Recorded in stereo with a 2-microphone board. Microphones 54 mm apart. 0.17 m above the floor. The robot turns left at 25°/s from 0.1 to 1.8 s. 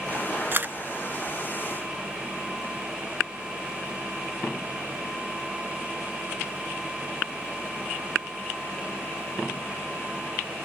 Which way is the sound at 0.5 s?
40° right (ahead or behind).